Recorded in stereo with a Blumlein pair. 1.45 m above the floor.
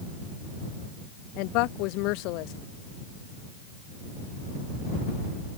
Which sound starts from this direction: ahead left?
A woman speaking, at 1.4 s.